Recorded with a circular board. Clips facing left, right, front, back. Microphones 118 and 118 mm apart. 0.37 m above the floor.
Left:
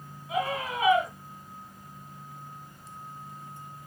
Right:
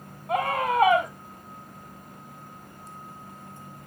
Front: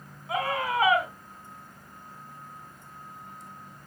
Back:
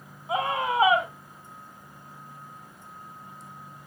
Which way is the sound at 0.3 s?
115° right.